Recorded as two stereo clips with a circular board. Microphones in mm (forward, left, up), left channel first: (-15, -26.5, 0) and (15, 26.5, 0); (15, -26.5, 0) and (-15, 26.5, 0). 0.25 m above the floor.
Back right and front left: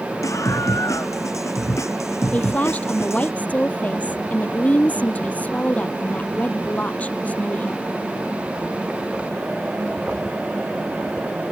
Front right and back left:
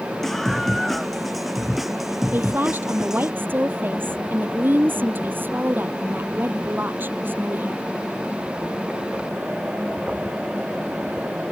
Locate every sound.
0.2 s a scream: 145° right; by 3.3 s 160° right
2.3 s a woman speaking: 175° left